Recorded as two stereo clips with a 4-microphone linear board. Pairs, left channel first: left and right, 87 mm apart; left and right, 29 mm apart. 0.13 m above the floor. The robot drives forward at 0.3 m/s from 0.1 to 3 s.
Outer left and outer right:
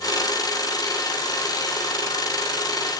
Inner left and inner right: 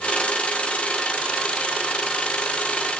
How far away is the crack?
I don't hear a crack.